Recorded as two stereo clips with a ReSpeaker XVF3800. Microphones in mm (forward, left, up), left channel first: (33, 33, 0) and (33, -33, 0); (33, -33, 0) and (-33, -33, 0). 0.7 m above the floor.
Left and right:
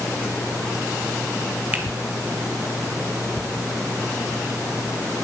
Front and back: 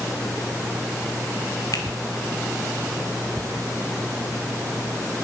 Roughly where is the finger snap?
Ahead right.